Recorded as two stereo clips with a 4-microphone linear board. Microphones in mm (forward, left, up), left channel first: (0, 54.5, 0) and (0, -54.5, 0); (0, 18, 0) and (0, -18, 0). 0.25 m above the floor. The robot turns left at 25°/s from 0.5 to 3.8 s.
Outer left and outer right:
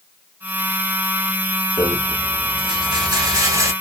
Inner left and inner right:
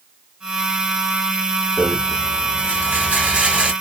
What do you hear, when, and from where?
1.8 s a rattle: 95° right, 1.1 m; by 3.7 s 140° right, 1.1 m